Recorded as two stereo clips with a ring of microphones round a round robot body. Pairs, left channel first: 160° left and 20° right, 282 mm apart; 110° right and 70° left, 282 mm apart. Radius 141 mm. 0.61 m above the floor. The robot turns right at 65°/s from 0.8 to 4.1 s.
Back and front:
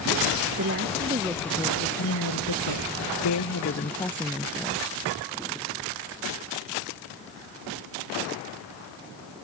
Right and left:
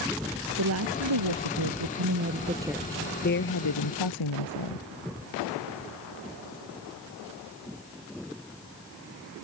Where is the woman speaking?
25° left; by 4.8 s 120° right.